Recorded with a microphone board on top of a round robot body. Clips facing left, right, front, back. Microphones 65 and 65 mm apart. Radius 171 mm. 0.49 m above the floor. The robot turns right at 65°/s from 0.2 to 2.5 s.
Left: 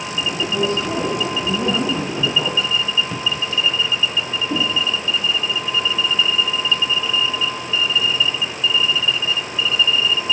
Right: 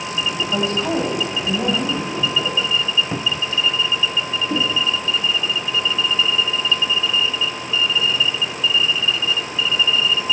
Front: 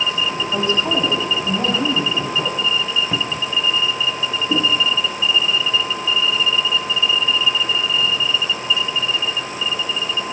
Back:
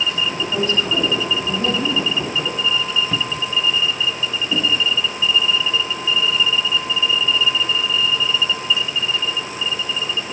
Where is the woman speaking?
85° right, 4.5 m; by 2.7 s 50° left, 4.5 m.